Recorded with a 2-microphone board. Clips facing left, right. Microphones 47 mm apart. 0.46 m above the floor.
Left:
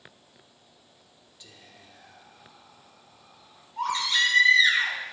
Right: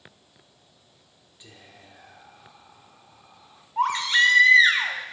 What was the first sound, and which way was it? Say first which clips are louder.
Whispering: right 3 dB; 20° right (ahead or behind).